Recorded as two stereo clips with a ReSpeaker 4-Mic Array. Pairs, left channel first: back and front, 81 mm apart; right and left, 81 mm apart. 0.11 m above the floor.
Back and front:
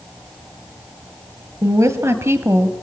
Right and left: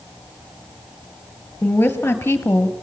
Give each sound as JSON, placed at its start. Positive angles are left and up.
{"t": 1.6, "sound": "a woman speaking", "azimuth_deg": -30, "distance_m": 2.5}